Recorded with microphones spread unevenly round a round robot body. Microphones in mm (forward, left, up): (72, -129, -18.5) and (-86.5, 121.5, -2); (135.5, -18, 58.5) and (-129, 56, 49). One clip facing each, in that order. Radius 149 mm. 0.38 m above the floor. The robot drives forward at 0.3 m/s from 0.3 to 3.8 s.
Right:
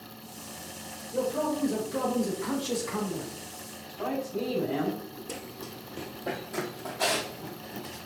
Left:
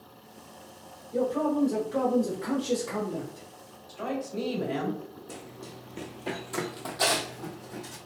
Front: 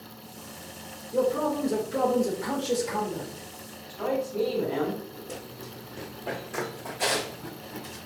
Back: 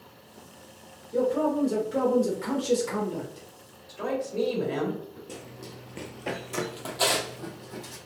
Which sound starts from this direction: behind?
A woman speaking, at 3.9 s.